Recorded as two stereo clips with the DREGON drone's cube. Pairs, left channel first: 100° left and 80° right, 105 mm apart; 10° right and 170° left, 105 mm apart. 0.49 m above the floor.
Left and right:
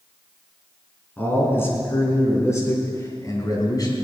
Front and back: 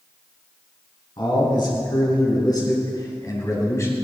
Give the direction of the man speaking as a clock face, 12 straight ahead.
11 o'clock.